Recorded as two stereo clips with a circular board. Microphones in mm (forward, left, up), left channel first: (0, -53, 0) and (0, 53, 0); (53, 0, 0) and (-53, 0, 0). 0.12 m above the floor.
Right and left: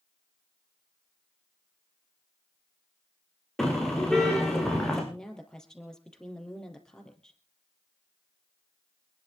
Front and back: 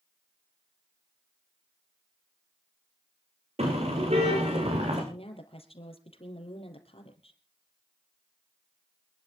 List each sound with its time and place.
3.6 s a car horn: 175° right, 5 m
5.1 s a woman speaking: 5° right, 3.5 m